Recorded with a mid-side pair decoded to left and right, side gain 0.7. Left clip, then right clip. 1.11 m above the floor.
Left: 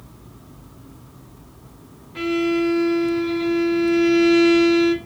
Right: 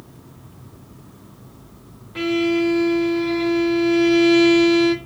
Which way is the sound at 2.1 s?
15° right.